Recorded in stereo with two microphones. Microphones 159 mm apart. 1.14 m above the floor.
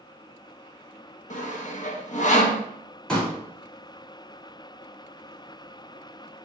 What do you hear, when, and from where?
1.3 s sawing: 50° left (ahead or behind), 0.6 m
3.1 s a pop: 5° left (ahead or behind), 2.5 m